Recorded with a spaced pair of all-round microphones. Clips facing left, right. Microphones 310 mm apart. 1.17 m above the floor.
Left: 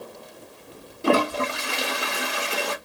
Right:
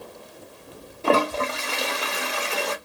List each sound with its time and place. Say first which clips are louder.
1.0 s a toilet flushing: left 1 dB; 20° left (ahead or behind), 1.1 m